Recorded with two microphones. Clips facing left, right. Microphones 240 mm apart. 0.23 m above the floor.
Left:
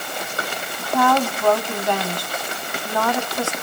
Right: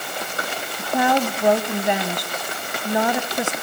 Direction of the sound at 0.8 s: 20° right (ahead or behind).